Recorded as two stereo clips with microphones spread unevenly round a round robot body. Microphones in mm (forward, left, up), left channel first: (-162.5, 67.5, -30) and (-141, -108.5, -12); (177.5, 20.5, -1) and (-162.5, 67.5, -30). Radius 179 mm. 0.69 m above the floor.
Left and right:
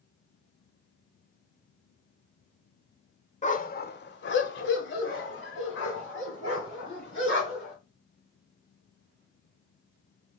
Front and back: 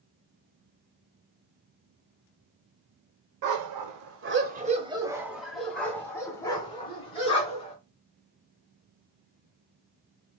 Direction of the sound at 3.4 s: 150° left.